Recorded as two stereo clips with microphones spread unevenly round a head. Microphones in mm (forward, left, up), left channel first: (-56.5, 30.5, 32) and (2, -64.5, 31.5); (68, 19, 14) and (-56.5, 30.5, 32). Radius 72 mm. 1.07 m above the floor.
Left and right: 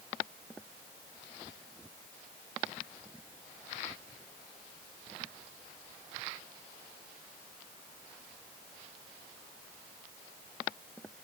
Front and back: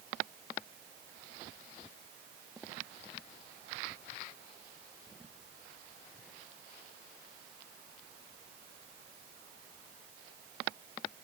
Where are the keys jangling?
I don't hear keys jangling.